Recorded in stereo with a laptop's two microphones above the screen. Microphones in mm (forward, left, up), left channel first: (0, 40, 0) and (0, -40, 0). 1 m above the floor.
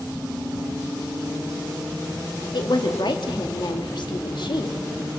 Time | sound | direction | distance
2.5 | a woman speaking | 70° left (ahead or behind) | 1.9 m